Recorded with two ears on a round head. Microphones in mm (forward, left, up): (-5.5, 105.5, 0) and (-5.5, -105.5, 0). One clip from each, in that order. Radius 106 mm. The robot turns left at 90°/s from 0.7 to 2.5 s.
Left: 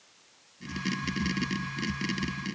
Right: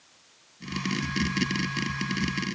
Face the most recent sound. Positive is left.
No sound to turn to.